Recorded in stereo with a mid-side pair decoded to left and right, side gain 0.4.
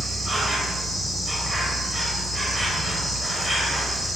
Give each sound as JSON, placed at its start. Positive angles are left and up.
{"t": 0.0, "sound": "an insect", "azimuth_deg": -15, "distance_m": 1.0}